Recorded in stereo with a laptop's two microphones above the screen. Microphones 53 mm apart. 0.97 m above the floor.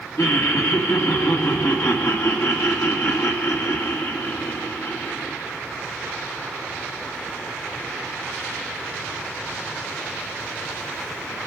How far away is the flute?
I don't hear a flute.